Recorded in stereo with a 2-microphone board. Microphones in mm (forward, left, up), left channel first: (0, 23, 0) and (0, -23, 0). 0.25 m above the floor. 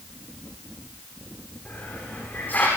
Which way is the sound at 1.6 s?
45° left (ahead or behind).